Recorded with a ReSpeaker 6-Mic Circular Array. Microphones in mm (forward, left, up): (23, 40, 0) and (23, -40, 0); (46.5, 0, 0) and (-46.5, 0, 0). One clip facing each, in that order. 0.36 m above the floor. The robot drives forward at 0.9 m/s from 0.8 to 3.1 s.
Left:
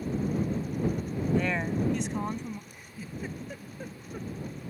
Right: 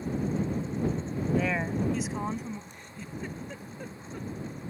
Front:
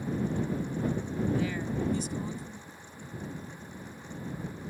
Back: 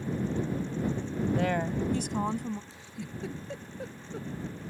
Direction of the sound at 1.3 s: 175° right.